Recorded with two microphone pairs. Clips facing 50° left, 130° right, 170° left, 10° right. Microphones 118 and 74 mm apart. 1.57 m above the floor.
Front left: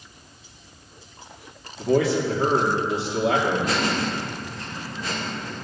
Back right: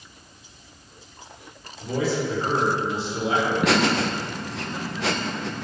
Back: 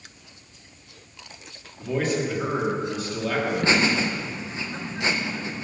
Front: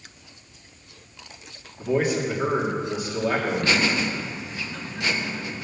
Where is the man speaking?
65° left, 3 m.